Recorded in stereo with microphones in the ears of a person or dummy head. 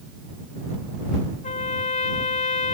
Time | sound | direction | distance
1.4 | a trumpet | 45° left (ahead or behind) | ?